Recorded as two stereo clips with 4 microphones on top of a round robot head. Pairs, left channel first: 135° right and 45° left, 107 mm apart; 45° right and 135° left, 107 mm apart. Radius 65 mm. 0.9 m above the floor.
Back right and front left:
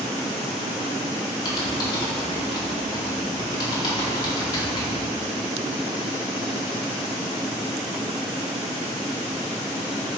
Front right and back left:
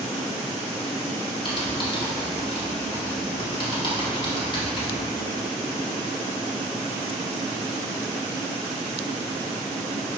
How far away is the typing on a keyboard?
About 2.5 m.